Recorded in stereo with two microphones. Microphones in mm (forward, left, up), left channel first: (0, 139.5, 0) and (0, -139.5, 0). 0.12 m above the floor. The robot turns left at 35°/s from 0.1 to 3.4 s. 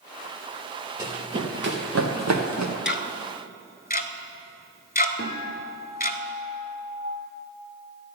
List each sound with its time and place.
1.0 s running footsteps: 10° right (ahead or behind), 3.5 m; by 2.8 s 80° right, 1.6 m
2.9 s ticking: 40° left (ahead or behind), 0.6 m; by 6.2 s 30° left (ahead or behind), 0.6 m
5.2 s a guitar: 55° left (ahead or behind), 2.5 m